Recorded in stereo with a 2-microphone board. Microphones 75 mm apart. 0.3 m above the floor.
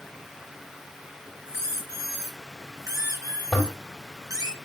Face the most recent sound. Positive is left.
turn(degrees=10)  # may be behind; listen again after turning